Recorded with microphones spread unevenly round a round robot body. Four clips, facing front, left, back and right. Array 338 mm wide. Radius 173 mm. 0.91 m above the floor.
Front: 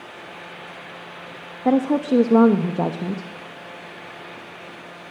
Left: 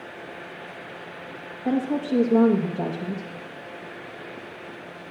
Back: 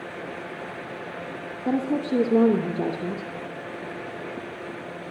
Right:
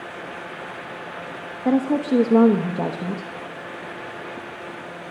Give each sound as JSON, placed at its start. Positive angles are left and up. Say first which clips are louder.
{"t": 1.6, "sound": "a woman speaking", "louder": "right 4 dB, front 6 dB", "azimuth_deg": -30, "distance_m": 1.1}